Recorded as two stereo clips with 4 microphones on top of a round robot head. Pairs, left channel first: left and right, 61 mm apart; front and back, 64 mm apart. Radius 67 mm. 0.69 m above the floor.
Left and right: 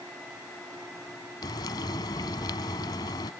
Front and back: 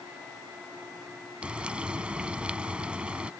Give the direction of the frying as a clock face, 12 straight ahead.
8 o'clock.